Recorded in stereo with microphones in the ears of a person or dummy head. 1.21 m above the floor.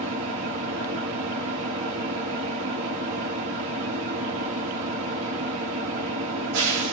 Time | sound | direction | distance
0.0 | an engine running | 70° right (ahead or behind) | 1.6 m